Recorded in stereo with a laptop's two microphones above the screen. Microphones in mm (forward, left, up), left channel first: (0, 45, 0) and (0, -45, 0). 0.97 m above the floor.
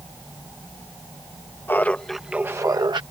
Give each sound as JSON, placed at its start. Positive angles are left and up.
{"t": 1.7, "sound": "laughter", "side_deg": 25}